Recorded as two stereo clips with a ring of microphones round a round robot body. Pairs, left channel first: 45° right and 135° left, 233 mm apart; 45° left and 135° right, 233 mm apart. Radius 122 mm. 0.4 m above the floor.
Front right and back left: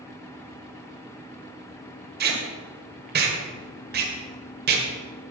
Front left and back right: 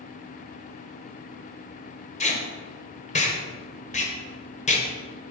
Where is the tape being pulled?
100° left, 2 m.